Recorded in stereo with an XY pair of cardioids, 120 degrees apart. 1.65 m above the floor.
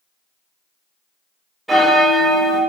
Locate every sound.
1.7 s a bell: 5° right, 0.8 m